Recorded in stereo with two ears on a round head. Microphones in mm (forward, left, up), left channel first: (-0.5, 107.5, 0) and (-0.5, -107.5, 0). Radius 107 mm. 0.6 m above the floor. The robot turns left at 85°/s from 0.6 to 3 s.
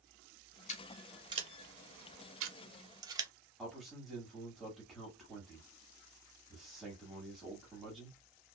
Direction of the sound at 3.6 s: Centre (ahead or behind).